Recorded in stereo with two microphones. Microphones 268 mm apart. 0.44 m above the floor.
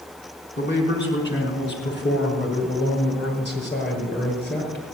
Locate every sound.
0.6 s a man speaking: 40° left (ahead or behind), 4 m; by 4.8 s 35° left (ahead or behind), 7 m